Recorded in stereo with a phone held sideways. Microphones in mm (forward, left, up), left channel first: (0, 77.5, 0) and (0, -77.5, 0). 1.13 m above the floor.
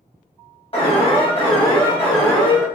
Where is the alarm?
40° left (ahead or behind), 1.0 m.